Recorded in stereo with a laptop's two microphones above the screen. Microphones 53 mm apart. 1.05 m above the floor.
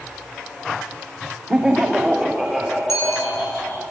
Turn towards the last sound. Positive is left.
turn(degrees=60)  # may be behind; listen again after turning